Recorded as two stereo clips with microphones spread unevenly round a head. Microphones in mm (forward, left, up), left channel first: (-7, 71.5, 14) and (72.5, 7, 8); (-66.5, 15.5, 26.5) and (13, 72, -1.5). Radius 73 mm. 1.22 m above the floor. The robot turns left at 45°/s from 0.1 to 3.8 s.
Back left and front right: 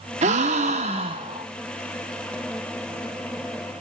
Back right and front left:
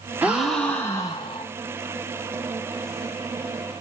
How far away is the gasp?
About 0.7 m.